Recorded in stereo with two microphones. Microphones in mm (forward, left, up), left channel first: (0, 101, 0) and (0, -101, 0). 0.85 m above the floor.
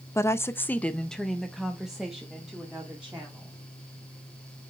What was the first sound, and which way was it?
A woman speaking, 15° left (ahead or behind).